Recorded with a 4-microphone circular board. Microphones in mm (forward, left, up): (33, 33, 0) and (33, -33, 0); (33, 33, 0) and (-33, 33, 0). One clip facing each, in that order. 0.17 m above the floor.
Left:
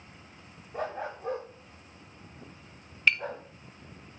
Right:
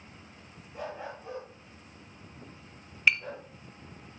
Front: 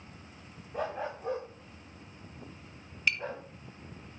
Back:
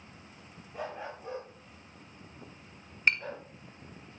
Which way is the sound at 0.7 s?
40° left.